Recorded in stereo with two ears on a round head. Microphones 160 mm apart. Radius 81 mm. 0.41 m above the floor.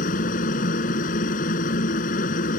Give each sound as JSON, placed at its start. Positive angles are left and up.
{"t": 0.0, "sound": "a helicopter", "side_deg": 45}